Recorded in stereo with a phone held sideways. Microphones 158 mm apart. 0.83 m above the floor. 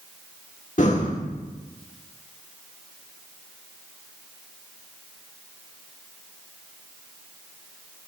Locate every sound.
0.8 s breathing: 50° left (ahead or behind), 1.3 m